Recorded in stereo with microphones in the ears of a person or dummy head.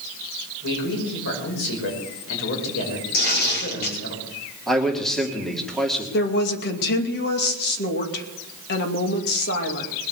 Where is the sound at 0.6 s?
65° left (ahead or behind), 5.5 m.